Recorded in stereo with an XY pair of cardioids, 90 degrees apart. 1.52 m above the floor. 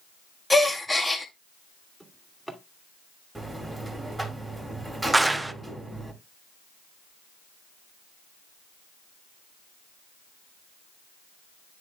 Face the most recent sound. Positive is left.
turn(degrees=-15)